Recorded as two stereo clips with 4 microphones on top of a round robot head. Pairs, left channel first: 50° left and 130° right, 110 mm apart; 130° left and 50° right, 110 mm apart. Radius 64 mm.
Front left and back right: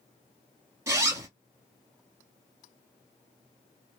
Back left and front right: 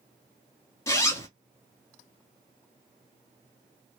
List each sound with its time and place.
0.9 s a zipper: straight behind, 1.5 m